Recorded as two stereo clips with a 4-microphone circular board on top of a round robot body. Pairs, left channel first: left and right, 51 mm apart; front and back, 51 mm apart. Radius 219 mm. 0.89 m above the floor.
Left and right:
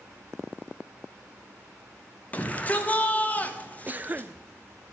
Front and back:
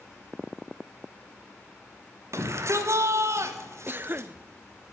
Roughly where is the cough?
Behind right.